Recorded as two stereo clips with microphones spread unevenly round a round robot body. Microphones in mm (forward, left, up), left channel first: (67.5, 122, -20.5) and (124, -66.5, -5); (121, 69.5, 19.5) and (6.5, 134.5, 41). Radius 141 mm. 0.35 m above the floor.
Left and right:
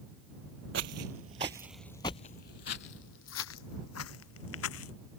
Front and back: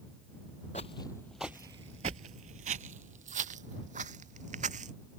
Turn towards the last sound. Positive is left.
turn(degrees=130)